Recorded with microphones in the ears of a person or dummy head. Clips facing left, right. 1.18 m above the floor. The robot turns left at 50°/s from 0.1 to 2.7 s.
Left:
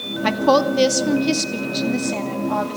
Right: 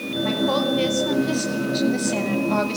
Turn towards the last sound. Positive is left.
turn(degrees=-35)